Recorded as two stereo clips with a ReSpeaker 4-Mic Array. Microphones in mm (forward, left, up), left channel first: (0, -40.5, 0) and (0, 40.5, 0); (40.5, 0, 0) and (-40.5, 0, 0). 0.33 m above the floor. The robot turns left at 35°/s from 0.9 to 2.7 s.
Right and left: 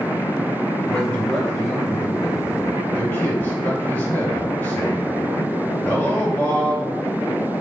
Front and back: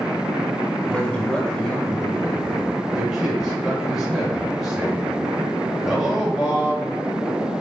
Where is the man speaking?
40° right, 1.4 m; by 7.0 s 105° right, 1.4 m.